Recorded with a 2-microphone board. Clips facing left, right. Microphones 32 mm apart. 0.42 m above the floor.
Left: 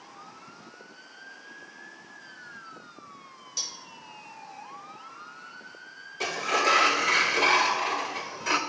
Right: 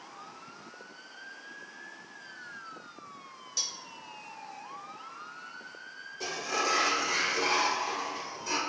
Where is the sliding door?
60° left (ahead or behind), 0.7 m.